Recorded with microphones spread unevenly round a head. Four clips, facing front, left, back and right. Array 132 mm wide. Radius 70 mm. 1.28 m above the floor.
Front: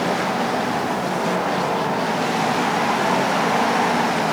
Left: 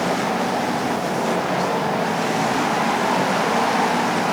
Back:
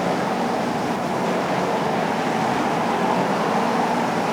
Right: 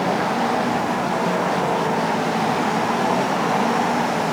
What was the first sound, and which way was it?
Only background noise.